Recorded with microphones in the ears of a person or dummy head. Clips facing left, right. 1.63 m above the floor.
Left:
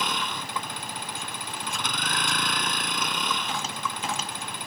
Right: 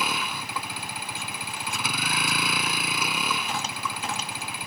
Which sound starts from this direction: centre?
A vehicle, at 0.0 s.